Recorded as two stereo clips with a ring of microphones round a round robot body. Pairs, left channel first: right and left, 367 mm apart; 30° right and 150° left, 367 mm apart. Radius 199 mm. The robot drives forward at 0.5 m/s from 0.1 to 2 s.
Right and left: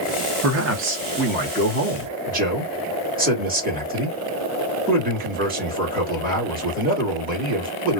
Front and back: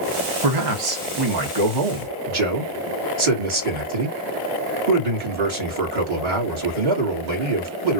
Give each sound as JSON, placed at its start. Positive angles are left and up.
{"t": 0.4, "sound": "a man speaking", "azimuth_deg": 135, "distance_m": 1.1}